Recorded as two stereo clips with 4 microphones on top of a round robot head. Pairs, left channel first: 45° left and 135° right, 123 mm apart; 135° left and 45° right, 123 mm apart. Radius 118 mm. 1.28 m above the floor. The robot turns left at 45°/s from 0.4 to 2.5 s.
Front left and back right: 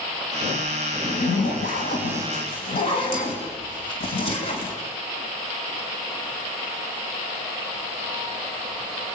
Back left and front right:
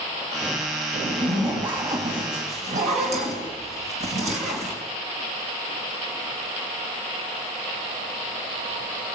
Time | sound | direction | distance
1.0 | a zipper | 60° left | 4 m